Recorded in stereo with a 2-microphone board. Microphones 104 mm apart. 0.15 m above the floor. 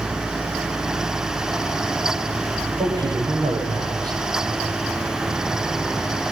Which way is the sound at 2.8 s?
40° right (ahead or behind).